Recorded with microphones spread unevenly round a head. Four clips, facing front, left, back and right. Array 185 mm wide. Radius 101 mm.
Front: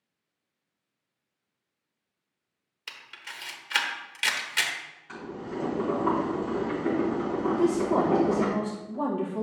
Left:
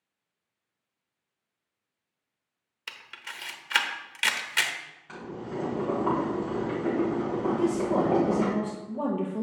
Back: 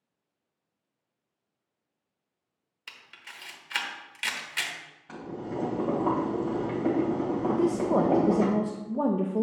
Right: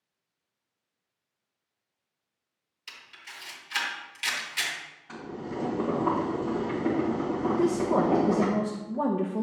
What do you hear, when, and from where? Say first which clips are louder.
2.9 s a camera shutter: left 5 dB, front 4 dB; 80° left, 1.2 m
5.1 s boiling: even, back 1 dB; 175° left, 2.5 m
7.5 s a woman speaking: right 1 dB, front 1 dB; 170° right, 0.6 m